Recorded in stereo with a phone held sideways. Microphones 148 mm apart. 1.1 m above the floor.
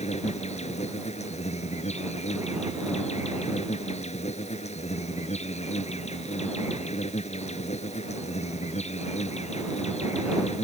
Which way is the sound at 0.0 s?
55° left (ahead or behind).